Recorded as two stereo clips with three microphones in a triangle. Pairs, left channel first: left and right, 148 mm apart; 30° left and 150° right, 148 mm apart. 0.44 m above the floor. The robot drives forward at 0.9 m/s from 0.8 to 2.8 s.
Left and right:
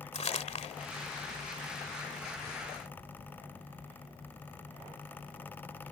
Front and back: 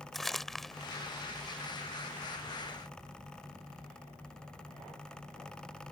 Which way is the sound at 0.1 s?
120° left.